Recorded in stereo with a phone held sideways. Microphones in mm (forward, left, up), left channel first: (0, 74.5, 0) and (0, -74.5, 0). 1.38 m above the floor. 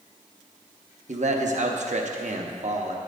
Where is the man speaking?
55° right (ahead or behind), 0.8 m.